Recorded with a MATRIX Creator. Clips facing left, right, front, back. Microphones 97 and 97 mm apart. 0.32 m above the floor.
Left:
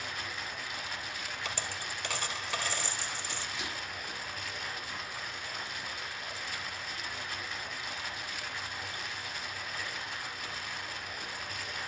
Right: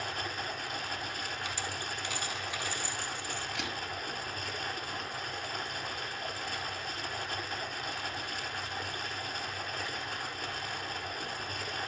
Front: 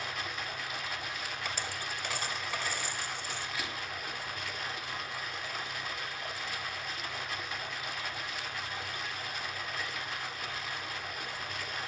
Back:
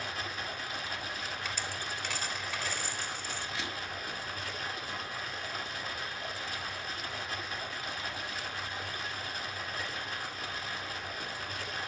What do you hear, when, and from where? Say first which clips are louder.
0.0 s running water: right 3 dB, even; 130° right, 1.8 m
1.4 s a dropped coin: right 1 dB, even; 85° left, 2.5 m
3.5 s a camera shutter: right 2 dB, even; 115° right, 4 m